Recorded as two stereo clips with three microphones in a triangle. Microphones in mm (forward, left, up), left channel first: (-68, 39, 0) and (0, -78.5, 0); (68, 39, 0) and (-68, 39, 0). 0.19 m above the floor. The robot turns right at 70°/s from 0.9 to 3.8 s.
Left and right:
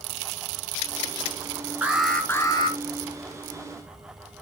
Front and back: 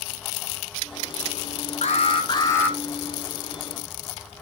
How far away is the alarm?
About 1.3 m.